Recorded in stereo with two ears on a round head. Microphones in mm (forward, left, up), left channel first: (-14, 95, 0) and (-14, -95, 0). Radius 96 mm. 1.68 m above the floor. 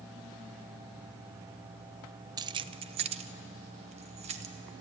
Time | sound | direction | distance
2.4 | keys jangling | 20° right (ahead or behind) | 0.5 m